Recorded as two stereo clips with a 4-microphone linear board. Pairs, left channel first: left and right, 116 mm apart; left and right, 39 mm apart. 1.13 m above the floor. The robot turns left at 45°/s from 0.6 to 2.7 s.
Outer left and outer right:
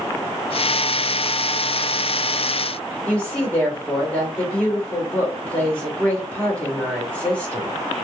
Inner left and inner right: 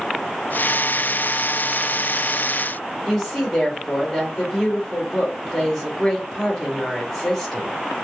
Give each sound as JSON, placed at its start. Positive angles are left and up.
{"t": 3.1, "sound": "a woman speaking", "side_deg": 10, "distance_m": 2.5}